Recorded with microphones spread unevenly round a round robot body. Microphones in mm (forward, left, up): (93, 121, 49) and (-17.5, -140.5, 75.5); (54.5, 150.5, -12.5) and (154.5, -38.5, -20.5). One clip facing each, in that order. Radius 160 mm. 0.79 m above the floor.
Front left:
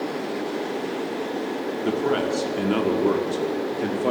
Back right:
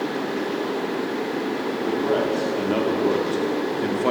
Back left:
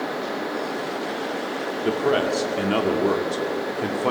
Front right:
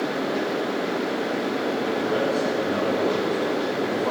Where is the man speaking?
105° left, 2.5 m; by 4.1 s 160° left, 2.5 m.